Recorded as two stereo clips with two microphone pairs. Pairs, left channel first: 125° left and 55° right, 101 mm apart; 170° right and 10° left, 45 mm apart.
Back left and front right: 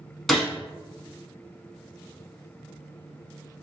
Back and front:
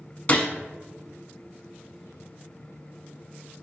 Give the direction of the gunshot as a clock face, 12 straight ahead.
5 o'clock.